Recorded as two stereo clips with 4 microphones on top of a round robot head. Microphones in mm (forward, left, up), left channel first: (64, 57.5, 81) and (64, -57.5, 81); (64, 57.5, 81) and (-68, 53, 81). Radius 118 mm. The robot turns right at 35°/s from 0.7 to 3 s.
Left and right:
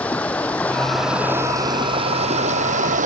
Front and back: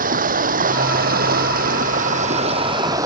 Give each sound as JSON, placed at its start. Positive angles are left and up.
{"t": 0.0, "sound": "running water", "azimuth_deg": 170}